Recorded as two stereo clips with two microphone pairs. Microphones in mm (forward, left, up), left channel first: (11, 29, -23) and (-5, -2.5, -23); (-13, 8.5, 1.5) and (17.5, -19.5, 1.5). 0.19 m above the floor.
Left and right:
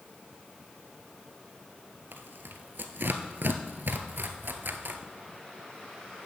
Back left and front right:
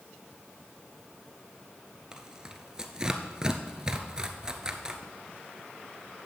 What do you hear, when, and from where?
2.1 s tearing paper: 115° right, 0.9 m